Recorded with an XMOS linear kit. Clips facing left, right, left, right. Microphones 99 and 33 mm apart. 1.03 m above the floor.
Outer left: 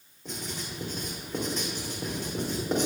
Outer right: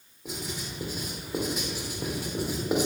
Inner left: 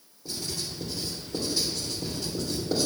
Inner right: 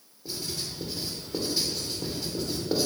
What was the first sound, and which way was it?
Writing, 10° right (ahead or behind).